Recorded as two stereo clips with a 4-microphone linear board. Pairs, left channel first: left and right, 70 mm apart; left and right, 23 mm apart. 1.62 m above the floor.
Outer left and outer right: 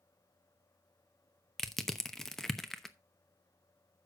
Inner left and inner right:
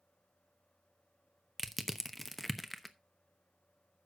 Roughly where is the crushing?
Centre.